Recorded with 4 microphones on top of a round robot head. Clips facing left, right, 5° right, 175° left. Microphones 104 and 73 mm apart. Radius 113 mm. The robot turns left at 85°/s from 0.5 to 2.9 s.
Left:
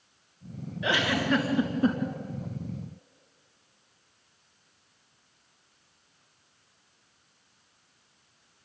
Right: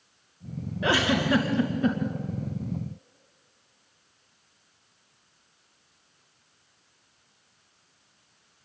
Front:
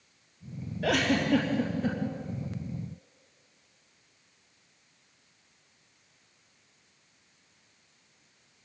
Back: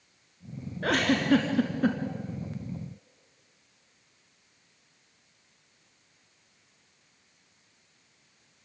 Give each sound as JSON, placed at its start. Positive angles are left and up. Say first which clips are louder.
{"t": 0.8, "sound": "a giggle", "louder": "right 3 dB, back 1 dB", "azimuth_deg": -130, "distance_m": 2.5}